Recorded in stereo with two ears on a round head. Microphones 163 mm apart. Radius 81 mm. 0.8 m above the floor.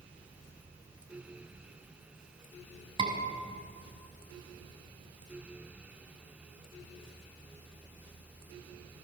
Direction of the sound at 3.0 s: 30° right (ahead or behind).